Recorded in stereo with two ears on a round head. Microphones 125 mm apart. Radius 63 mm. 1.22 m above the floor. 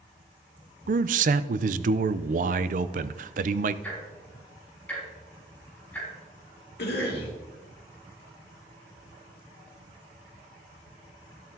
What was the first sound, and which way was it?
A man speaking, 60° right (ahead or behind).